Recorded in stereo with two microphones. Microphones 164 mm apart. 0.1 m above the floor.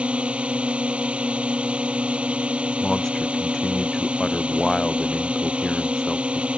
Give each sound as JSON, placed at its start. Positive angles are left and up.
{"t": 0.0, "sound": "a drone", "side_deg": -5}
{"t": 2.8, "sound": "a man speaking", "side_deg": 5}